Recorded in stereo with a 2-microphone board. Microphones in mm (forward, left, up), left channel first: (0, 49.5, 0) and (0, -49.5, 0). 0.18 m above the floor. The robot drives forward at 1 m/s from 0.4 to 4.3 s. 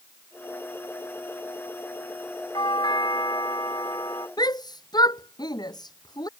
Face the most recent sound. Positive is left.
turn(degrees=45)  # may be behind; listen again after turning